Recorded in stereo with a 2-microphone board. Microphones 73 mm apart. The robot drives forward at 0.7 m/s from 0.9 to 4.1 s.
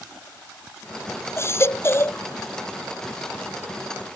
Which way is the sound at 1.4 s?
35° left (ahead or behind).